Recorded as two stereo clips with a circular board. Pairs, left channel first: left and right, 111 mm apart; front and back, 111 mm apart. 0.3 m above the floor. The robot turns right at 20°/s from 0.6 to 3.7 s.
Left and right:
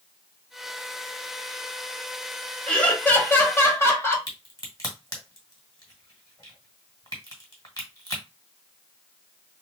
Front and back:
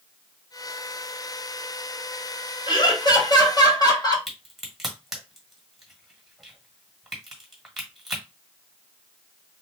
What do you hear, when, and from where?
2.7 s laughter: 15° left, 1.2 m; by 4.2 s 35° left, 1.2 m
4.3 s a crack: 95° left, 1.5 m